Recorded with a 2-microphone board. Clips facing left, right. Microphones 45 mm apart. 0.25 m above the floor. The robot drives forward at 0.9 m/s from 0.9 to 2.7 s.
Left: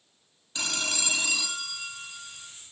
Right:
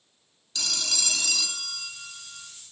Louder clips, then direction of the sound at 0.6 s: Left 2 dB; 30° left (ahead or behind).